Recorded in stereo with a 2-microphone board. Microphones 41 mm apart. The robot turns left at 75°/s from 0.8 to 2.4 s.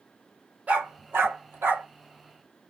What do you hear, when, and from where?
0.7 s a dog barking: 35° right (ahead or behind), 1.8 m; by 1.9 s 65° right (ahead or behind), 1.8 m